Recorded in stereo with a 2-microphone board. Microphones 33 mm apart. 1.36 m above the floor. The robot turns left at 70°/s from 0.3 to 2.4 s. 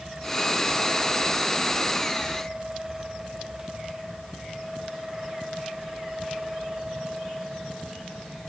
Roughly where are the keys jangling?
No keys jangling in this recording.